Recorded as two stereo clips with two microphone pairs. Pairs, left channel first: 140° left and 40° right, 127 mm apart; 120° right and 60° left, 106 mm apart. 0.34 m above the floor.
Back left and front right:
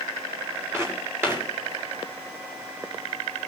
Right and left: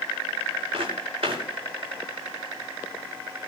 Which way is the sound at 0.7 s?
30° left.